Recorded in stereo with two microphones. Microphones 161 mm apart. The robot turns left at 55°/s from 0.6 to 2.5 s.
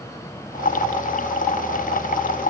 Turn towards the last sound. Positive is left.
No sound to turn to.